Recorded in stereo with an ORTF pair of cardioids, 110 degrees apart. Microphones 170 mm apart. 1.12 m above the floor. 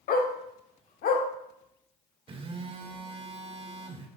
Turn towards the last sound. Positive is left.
turn(degrees=-30)